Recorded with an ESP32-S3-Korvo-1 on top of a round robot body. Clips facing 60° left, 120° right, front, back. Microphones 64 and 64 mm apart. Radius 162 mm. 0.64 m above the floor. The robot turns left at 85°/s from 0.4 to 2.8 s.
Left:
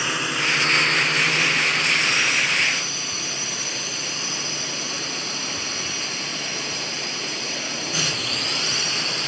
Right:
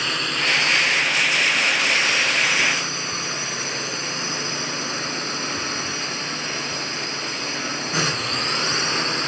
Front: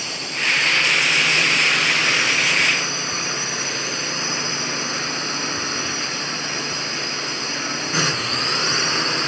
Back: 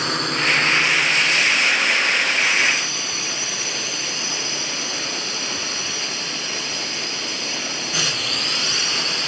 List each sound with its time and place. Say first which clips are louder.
0.0 s a drone: even, back 4 dB; 145° left; by 9.3 s 60° right